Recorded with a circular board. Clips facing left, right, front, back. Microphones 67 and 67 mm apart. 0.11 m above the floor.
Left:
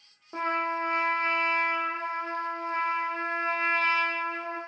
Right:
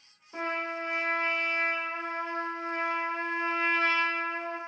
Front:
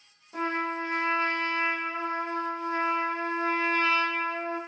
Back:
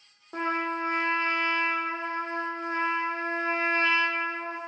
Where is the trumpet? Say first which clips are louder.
Left 4 dB, back 1 dB; 130° left, 0.7 m.